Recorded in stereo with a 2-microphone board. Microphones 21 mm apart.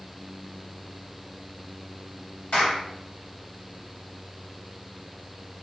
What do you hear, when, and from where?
2.5 s a clap: 75° left (ahead or behind), 3 m